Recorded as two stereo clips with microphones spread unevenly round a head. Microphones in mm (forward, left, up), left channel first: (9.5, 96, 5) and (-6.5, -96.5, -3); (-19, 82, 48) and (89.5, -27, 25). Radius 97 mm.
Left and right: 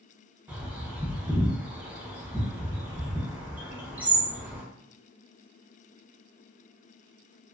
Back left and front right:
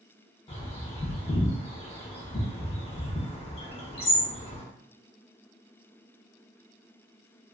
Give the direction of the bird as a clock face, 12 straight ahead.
6 o'clock.